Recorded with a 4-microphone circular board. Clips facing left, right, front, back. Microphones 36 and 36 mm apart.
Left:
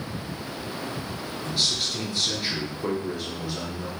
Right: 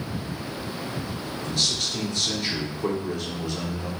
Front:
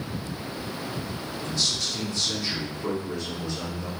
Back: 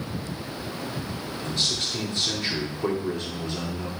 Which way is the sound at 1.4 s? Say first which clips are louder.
Even, back 1 dB; 165° left.